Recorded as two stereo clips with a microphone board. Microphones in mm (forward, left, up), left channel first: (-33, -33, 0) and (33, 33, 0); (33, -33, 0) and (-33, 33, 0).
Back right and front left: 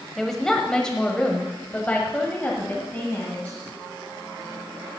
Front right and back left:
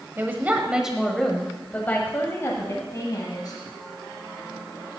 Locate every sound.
0.2 s a woman speaking: 145° left, 1.2 m; by 3.6 s 70° right, 1.8 m